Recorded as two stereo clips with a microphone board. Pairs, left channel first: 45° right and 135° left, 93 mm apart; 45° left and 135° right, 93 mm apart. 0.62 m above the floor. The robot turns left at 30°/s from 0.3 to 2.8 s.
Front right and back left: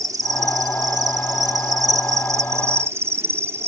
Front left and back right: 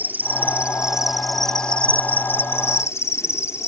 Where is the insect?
165° left; by 3.7 s 90° left.